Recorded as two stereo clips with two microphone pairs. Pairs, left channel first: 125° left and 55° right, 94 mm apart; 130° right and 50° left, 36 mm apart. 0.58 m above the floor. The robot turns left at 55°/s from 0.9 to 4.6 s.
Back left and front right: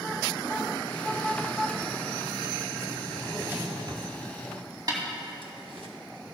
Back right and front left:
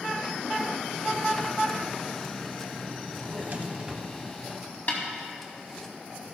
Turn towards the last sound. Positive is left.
turn(degrees=-100)